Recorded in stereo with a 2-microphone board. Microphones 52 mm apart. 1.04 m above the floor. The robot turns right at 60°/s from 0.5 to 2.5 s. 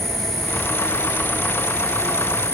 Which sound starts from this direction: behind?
An insect, at 0.0 s.